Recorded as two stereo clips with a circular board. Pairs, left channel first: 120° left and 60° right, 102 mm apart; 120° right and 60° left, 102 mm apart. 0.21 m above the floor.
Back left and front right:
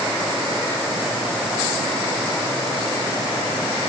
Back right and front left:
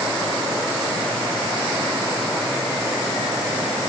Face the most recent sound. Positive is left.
No sound to turn to.